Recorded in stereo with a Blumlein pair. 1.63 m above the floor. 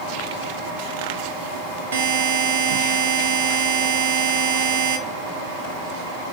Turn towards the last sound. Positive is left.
turn(degrees=-65)